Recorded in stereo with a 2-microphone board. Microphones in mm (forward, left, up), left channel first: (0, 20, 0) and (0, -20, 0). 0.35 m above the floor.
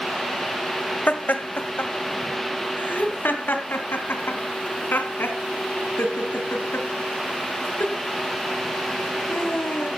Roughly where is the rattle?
I don't hear a rattle.